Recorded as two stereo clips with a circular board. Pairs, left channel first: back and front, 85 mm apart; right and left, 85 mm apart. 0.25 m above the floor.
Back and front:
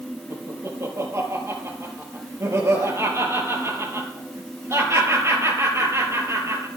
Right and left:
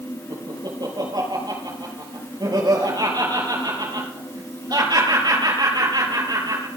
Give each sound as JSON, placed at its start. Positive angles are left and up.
{"t": 0.3, "sound": "laughter", "azimuth_deg": 55, "distance_m": 5.5}